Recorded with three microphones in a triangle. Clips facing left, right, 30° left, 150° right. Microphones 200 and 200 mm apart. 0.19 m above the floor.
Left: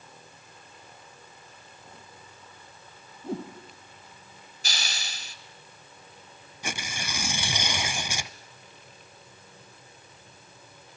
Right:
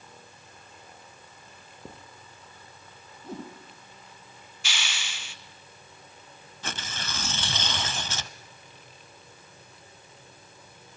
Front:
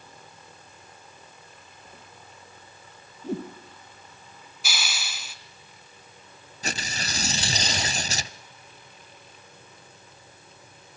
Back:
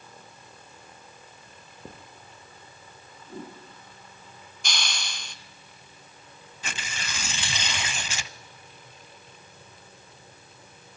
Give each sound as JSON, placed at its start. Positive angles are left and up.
{"t": 1.5, "sound": "writing", "azimuth_deg": -115, "distance_m": 5.0}
{"t": 3.2, "sound": "a whoosh", "azimuth_deg": 30, "distance_m": 4.0}
{"t": 4.6, "sound": "a hiss", "azimuth_deg": 110, "distance_m": 1.2}
{"t": 6.6, "sound": "tearing paper", "azimuth_deg": 20, "distance_m": 0.7}